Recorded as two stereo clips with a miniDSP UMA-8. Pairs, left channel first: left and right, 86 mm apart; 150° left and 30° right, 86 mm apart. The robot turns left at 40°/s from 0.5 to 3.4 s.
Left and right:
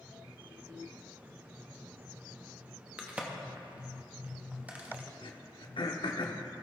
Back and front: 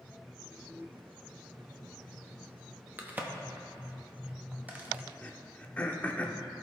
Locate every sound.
3.0 s a crack: 35° right, 0.9 m; by 5.0 s 55° right, 0.9 m
5.2 s throat clearing: 80° left, 0.6 m